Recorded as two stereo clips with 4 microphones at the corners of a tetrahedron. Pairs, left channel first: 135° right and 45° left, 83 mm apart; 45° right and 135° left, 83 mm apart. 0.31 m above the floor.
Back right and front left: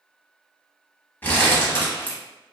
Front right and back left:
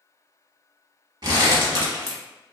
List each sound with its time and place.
1.2 s crumpling: 155° left, 0.8 m